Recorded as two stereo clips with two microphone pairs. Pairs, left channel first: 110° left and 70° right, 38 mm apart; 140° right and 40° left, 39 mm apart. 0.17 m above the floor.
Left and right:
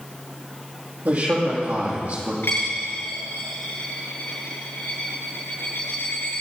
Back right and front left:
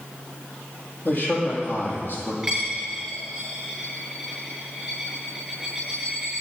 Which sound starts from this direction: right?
A man speaking, at 1.1 s.